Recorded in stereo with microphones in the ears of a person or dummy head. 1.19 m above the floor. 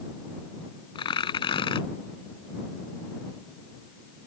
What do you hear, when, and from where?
0.9 s tearing paper: 30° left (ahead or behind)